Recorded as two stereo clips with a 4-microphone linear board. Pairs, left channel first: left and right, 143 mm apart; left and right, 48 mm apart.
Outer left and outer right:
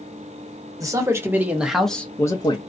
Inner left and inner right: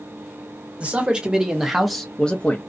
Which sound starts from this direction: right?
A man speaking, at 0.8 s.